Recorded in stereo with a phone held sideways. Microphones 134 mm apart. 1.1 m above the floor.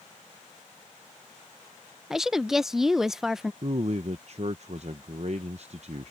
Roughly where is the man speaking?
Right.